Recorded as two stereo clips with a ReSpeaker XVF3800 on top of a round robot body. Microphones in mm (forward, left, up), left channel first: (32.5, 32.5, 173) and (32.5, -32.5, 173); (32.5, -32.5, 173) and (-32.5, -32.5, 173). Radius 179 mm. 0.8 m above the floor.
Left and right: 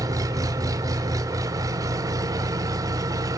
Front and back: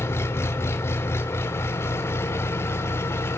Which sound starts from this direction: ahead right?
An engine running, at 0.0 s.